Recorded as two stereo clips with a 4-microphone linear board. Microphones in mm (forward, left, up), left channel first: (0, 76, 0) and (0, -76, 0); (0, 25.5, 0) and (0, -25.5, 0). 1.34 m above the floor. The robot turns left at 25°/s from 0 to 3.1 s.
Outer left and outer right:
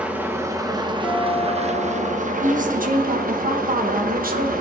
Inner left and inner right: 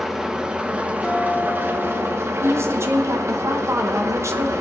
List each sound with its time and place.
0.0 s an engine running: 10° right, 0.9 m; by 4.6 s 85° right, 0.9 m
1.0 s dishes clattering: 10° right (ahead or behind), 3 m; by 2.2 s 35° right (ahead or behind), 3 m
2.4 s a woman speaking: 55° right (ahead or behind), 1.0 m; by 4.5 s 70° right (ahead or behind), 1.0 m